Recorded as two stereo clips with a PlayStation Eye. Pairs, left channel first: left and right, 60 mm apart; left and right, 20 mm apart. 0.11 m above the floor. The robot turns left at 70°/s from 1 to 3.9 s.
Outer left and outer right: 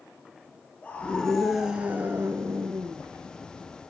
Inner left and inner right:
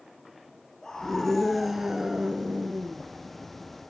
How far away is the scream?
About 2 m.